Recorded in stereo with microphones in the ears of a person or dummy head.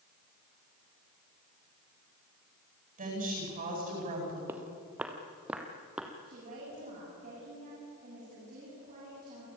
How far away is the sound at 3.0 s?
About 9.5 m.